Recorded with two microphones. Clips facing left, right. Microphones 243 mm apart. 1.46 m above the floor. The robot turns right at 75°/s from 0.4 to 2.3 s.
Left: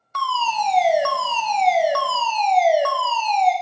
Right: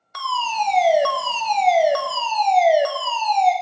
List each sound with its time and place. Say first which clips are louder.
0.1 s a fire alarm: left 1 dB; 160° right, 0.7 m; by 3.5 s 20° right, 0.7 m